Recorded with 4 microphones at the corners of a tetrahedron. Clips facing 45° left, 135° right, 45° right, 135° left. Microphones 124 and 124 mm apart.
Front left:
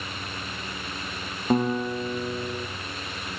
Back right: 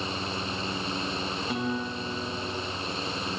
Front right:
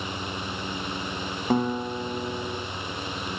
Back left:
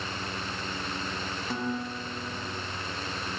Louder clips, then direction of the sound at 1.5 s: Front left 10 dB, front right 9 dB; straight ahead.